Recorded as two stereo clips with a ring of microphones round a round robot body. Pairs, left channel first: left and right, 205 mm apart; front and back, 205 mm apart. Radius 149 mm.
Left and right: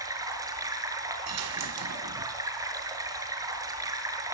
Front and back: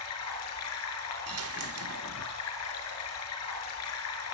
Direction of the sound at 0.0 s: 15° right.